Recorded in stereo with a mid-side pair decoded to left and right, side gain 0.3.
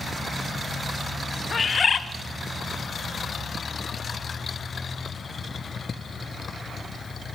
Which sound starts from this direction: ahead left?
A bird, at 1.5 s.